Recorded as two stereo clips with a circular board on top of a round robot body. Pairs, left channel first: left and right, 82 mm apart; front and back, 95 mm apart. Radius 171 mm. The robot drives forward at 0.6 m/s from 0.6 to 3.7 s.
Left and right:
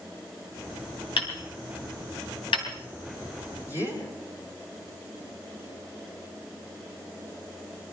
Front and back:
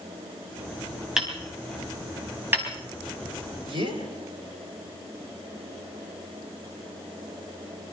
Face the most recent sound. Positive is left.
turn(degrees=145)